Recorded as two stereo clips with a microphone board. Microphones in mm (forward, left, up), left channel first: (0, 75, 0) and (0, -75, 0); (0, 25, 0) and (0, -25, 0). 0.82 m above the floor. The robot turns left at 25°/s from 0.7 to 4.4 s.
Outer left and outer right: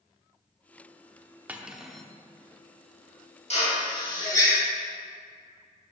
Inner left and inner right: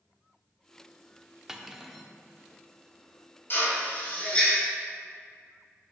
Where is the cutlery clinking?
10° right (ahead or behind), 0.8 m; by 2.1 s 5° left (ahead or behind), 0.8 m.